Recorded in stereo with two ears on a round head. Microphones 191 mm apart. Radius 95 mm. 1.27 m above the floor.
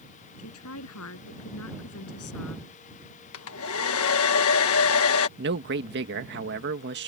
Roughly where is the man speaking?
Right.